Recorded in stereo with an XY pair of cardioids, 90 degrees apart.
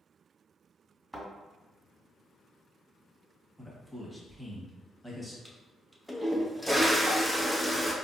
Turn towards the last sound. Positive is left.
turn(degrees=-5)